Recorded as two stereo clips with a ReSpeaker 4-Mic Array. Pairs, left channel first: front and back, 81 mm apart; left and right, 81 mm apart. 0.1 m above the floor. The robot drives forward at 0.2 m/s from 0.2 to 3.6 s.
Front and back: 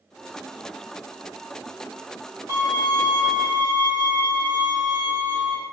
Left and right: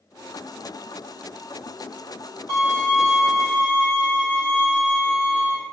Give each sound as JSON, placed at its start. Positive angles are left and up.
{"t": 2.5, "sound": "a violin", "azimuth_deg": 150, "distance_m": 1.8}